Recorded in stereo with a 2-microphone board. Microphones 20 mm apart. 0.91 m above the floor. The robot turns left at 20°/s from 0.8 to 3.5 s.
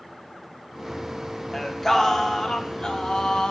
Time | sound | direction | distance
1.5 | singing | 170° left | 1.3 m